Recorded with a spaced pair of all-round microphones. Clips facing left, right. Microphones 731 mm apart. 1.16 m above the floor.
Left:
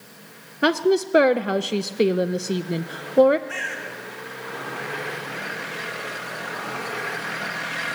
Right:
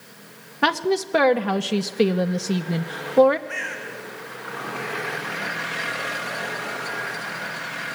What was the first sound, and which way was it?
A woman speaking, 35° right (ahead or behind).